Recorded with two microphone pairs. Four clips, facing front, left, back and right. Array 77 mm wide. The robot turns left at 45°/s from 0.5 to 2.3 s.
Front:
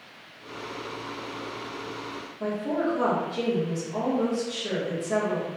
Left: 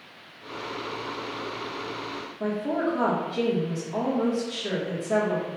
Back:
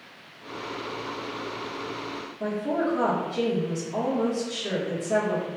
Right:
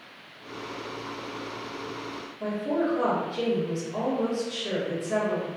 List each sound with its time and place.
2.4 s a woman speaking: 100° left, 1.2 m